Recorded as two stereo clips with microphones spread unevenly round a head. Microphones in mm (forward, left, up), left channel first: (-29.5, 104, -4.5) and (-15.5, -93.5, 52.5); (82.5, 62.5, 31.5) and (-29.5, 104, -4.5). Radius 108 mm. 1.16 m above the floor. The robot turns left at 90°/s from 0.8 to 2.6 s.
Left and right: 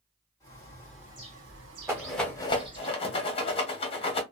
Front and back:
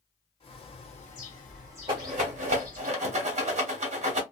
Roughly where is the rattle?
Behind right.